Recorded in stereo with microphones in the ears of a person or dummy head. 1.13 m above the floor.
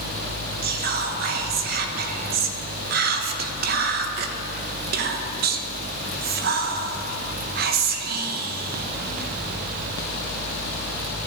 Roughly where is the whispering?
Right.